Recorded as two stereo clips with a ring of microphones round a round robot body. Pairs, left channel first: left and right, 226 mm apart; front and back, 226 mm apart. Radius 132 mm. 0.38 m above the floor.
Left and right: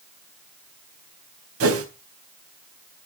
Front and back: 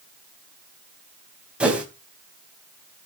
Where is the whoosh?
95° right, 3.5 m.